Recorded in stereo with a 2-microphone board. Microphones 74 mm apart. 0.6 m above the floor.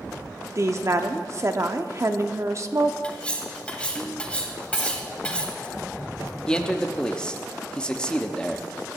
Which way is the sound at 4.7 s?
75° right (ahead or behind).